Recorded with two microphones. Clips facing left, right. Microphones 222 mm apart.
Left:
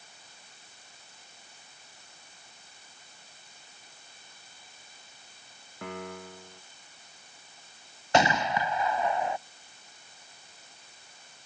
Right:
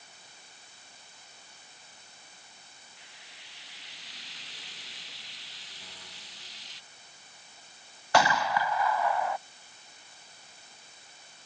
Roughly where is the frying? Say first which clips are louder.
Right 1 dB; right.